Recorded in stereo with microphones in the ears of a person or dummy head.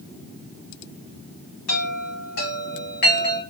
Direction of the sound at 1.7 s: 60° left (ahead or behind).